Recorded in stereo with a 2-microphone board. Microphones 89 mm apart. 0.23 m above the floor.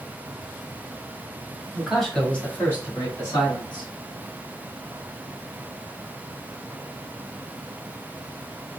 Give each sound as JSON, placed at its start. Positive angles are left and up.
{"t": 1.7, "sound": "a man speaking", "side_deg": -5, "distance_m": 1.6}